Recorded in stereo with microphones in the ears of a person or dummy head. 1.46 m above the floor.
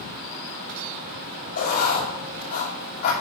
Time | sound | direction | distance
1.6 | writing | 60° left (ahead or behind) | 5 m